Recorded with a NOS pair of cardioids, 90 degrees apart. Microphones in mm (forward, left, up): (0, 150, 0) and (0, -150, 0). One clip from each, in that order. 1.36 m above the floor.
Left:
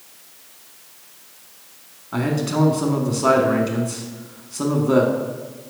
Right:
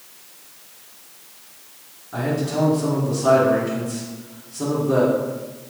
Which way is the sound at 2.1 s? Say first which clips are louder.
Left 1 dB; 60° left.